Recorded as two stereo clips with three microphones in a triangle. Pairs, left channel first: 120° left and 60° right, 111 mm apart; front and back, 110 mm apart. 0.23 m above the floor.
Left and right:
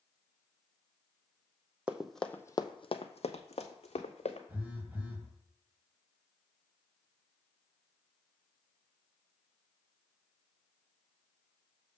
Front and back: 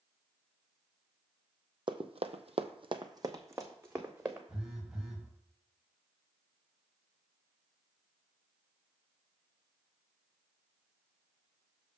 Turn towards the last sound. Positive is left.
turn(degrees=-105)